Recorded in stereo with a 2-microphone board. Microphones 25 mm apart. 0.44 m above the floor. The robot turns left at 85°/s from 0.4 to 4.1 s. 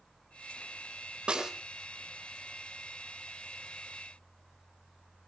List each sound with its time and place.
1.3 s a snare drum: 40° right (ahead or behind), 4.5 m; by 1.5 s 20° right (ahead or behind), 4.5 m